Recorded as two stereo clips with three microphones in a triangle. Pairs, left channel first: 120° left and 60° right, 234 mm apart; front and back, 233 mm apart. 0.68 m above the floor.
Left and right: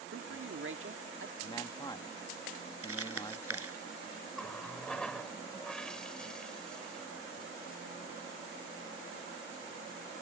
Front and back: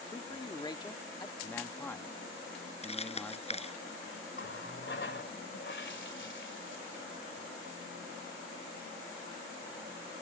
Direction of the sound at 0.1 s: 70° right.